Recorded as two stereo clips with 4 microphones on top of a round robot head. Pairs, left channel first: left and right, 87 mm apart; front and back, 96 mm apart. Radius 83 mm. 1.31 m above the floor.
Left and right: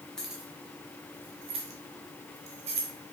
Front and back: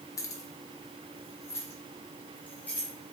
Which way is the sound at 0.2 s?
10° left.